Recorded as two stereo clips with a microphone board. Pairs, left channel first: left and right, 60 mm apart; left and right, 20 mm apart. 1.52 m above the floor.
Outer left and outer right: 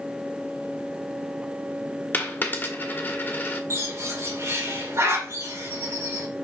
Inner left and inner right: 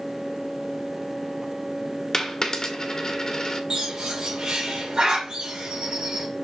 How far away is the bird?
About 2 m.